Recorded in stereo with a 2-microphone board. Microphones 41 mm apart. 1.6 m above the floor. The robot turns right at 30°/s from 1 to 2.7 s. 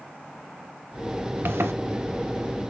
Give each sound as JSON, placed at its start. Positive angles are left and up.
{"t": 1.4, "sound": "a zipper", "side_deg": -65, "distance_m": 0.8}